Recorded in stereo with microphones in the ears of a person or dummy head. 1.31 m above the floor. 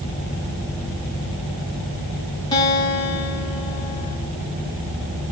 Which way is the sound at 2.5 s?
20° left (ahead or behind).